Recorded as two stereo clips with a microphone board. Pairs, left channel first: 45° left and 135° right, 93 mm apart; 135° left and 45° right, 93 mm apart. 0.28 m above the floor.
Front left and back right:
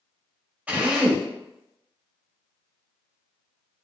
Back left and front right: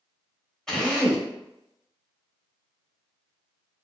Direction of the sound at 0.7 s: 155° right.